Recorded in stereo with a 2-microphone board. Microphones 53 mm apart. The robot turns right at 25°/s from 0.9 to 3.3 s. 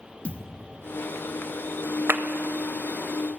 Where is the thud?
25° left (ahead or behind), 0.7 m.